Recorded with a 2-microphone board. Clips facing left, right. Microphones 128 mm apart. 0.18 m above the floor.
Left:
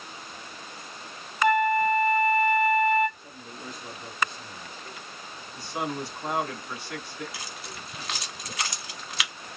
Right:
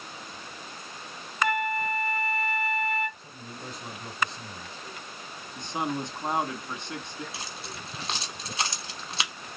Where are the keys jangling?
30° right (ahead or behind), 1.0 m.